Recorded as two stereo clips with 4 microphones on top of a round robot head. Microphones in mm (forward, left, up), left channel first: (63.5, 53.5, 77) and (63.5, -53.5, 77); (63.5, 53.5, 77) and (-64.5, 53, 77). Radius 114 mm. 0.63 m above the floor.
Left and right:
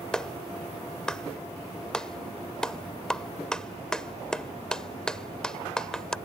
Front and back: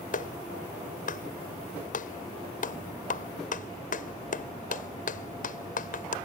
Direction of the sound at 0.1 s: 5° left.